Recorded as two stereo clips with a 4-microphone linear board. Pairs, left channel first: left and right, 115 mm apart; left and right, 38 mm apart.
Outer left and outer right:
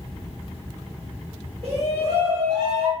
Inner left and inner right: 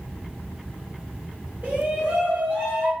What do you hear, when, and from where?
1.6 s a shout: 55° right (ahead or behind), 1.1 m; by 2.9 s 65° right (ahead or behind), 1.3 m